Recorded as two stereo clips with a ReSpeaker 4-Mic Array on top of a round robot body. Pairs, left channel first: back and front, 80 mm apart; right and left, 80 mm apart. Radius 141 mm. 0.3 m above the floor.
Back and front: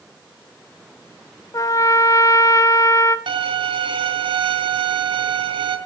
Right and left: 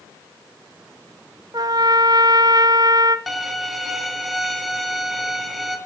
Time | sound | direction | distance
1.5 | a trumpet | 130° left | 0.7 m
3.3 | a violin | straight ahead | 3 m